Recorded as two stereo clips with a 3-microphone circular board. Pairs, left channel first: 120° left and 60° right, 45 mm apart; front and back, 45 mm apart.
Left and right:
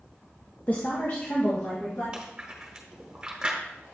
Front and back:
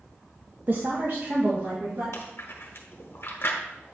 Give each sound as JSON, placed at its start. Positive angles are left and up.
{"t": 0.7, "sound": "a woman speaking", "azimuth_deg": 155, "distance_m": 0.7}
{"t": 2.1, "sound": "chewing", "azimuth_deg": 10, "distance_m": 1.2}